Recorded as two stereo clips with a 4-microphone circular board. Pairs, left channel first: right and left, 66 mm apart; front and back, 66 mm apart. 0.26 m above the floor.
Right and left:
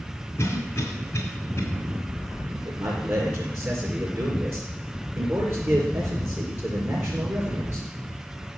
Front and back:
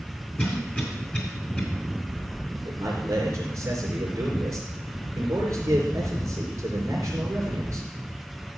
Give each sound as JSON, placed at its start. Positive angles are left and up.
{"t": 0.4, "sound": "a cough", "azimuth_deg": -55, "distance_m": 2.0}
{"t": 2.6, "sound": "a man speaking", "azimuth_deg": 140, "distance_m": 4.5}